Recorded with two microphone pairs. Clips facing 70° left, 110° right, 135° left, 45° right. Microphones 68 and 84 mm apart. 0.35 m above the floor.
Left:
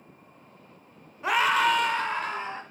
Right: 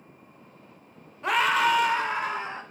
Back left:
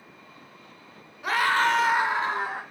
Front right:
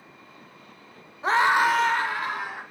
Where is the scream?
10° right, 1.0 m; by 2.6 s 175° left, 1.3 m.